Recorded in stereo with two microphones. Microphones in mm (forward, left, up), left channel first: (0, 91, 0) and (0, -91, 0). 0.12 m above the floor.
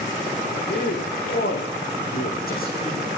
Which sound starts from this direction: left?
A man speaking, at 0.7 s.